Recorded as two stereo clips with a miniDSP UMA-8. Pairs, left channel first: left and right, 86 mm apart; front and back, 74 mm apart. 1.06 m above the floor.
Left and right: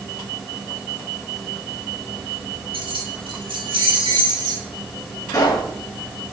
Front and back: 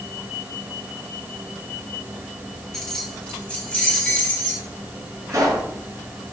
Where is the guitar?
No guitar in this recording.